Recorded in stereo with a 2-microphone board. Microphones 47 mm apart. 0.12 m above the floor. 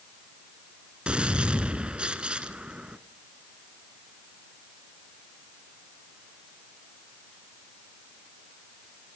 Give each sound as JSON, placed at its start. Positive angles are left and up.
{"t": 1.1, "sound": "a gunshot", "side_deg": -25, "distance_m": 1.2}